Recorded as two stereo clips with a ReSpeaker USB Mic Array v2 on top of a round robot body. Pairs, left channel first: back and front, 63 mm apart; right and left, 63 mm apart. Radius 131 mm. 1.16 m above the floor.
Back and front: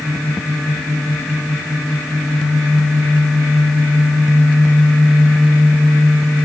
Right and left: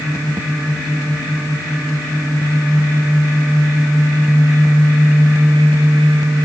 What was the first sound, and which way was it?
Only background noise.